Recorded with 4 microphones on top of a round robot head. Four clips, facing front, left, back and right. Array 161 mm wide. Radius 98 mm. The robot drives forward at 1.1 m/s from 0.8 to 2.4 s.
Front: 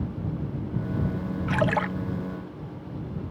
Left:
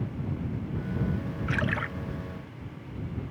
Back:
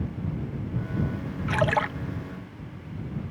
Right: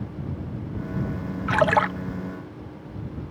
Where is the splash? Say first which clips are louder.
Right 12 dB, back 1 dB; 80° right; by 1.9 s 95° right.